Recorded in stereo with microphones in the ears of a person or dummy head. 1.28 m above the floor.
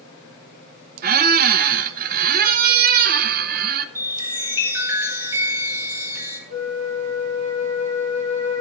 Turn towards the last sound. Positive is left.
turn(degrees=-50)  # may be behind; listen again after turning